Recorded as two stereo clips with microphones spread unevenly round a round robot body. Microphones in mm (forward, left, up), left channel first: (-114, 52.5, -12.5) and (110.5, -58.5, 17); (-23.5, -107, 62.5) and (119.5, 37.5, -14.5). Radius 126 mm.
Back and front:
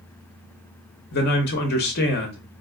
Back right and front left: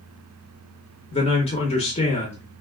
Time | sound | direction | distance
1.1 | a man speaking | 150° left | 0.7 m